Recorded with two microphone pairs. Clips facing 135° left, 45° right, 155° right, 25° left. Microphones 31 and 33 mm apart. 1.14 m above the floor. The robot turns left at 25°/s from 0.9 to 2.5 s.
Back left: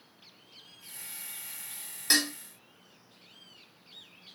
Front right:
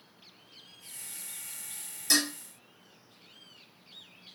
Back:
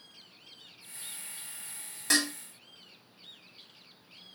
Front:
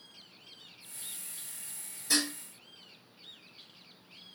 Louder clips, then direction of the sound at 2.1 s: Back left 1 dB, back 3 dB; 165° right.